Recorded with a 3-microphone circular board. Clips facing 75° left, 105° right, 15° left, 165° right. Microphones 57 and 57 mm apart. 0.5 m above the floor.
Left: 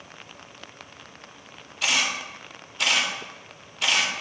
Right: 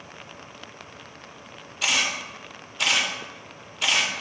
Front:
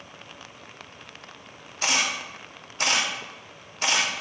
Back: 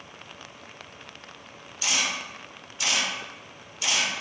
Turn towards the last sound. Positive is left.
turn(degrees=-15)